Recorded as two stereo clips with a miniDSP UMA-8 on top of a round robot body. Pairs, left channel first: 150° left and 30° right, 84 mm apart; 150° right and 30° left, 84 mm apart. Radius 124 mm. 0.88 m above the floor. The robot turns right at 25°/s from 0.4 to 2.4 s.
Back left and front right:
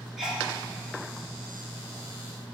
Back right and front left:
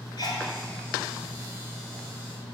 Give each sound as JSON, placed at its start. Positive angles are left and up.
{"t": 0.2, "sound": "a sneeze", "azimuth_deg": -110, "distance_m": 3.0}